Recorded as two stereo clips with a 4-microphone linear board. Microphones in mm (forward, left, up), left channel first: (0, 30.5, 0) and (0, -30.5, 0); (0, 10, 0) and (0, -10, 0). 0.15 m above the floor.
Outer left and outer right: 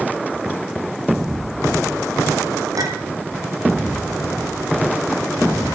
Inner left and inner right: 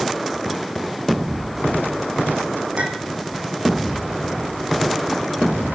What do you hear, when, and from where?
2.8 s a clink: 80° right, 4 m